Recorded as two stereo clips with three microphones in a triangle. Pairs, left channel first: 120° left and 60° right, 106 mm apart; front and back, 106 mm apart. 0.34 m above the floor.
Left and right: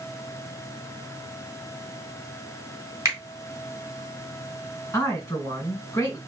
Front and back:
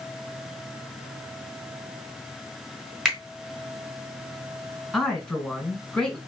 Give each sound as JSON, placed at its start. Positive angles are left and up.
{"t": 3.0, "sound": "a finger snap", "azimuth_deg": -95, "distance_m": 1.4}
{"t": 4.9, "sound": "a man speaking", "azimuth_deg": 80, "distance_m": 1.9}